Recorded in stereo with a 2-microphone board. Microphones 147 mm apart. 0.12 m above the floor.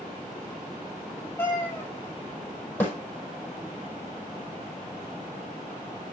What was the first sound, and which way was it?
A cat meowing, 15° left (ahead or behind).